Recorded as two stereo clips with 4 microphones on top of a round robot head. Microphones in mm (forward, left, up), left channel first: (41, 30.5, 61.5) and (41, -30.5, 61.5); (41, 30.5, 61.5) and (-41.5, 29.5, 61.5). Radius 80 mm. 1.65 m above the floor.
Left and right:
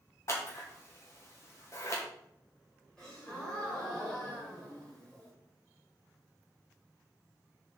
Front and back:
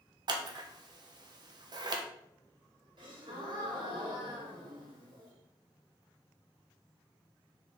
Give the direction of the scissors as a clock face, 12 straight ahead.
7 o'clock.